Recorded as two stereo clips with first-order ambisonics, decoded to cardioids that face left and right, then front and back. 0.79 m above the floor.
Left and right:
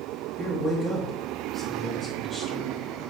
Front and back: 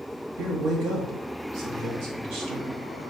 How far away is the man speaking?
About 0.9 m.